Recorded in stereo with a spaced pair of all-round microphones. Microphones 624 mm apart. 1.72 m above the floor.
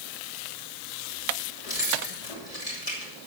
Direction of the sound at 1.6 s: 65° left (ahead or behind).